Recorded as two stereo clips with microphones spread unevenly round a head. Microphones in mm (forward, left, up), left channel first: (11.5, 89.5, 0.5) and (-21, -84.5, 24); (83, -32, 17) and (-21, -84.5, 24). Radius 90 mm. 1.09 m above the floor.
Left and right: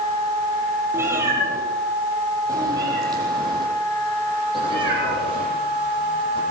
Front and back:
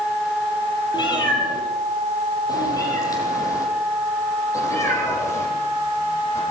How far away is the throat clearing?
No throat clearing in this recording.